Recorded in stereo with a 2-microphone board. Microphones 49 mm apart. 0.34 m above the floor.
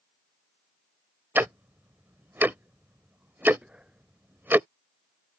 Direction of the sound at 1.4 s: 45° right (ahead or behind).